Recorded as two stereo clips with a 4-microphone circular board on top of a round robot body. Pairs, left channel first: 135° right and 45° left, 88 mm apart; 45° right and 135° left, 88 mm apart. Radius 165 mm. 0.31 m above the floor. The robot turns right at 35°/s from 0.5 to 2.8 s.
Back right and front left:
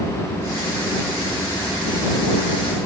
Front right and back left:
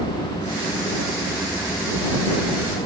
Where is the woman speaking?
I don't hear a woman speaking.